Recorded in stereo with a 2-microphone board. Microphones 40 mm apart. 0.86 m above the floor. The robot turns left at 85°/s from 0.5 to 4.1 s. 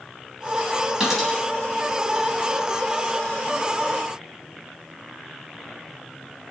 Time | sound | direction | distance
1.0 | a dropped coin | 20° right (ahead or behind) | 3.5 m